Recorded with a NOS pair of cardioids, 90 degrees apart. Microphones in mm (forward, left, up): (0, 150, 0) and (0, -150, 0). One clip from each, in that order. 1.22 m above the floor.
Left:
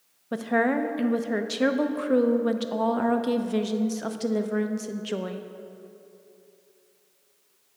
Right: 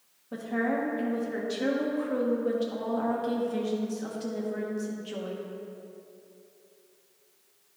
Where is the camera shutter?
I don't hear a camera shutter.